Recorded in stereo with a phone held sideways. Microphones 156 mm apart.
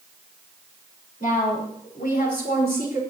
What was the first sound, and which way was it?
A woman speaking, 70° left (ahead or behind).